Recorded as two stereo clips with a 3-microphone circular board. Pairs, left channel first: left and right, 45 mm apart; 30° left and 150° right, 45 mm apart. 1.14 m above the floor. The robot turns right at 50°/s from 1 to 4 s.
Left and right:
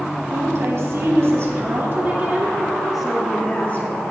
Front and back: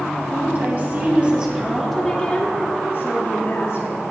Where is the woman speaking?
100° right, 3 m; by 4.0 s 50° left, 3 m.